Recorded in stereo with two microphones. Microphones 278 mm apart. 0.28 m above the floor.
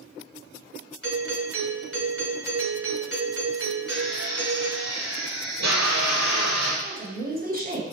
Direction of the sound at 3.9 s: 80° right.